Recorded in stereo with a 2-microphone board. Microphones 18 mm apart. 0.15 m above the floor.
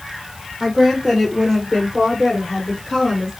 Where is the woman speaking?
10° left (ahead or behind), 3 m.